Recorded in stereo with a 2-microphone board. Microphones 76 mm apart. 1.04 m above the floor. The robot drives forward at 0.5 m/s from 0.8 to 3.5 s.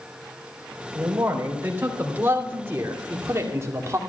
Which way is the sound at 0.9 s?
25° right (ahead or behind).